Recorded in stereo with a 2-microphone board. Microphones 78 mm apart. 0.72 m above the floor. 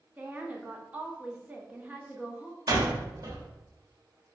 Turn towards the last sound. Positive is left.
turn(degrees=-55)  # may be behind; listen again after turning